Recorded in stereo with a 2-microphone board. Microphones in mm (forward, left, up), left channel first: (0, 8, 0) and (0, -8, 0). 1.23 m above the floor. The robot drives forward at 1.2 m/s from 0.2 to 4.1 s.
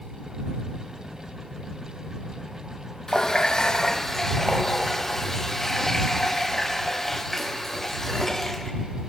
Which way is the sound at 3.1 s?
25° left (ahead or behind).